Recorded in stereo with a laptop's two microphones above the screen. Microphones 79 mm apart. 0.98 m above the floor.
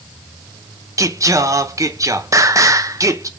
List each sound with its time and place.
1.0 s singing: 45° right (ahead or behind), 0.7 m